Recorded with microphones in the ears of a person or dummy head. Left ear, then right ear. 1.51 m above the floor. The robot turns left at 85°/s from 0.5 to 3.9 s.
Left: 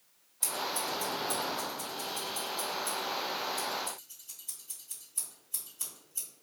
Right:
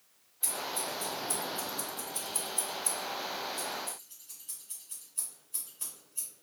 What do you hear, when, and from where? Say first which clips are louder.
0.4 s scissors: left 2 dB; 50° left (ahead or behind), 1.8 m; by 6.3 s 30° left (ahead or behind), 1.8 m